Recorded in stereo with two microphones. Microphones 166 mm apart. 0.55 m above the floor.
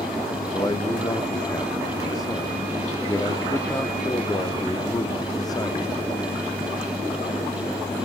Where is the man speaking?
20° left (ahead or behind), 0.8 m.